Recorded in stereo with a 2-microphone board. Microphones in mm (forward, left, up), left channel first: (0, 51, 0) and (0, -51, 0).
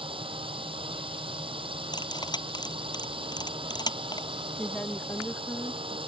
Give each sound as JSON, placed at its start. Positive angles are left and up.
{"t": 0.0, "sound": "a drone", "side_deg": -60}
{"t": 1.9, "sound": "cutlery clinking", "side_deg": 45}
{"t": 4.5, "sound": "a woman speaking", "side_deg": 15}